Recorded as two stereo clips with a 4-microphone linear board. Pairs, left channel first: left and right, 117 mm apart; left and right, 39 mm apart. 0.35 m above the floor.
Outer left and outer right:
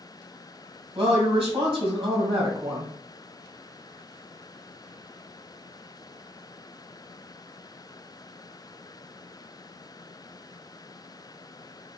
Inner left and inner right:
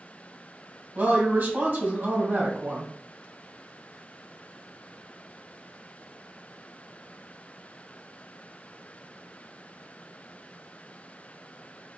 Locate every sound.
0.9 s a woman speaking: 55° right (ahead or behind), 2 m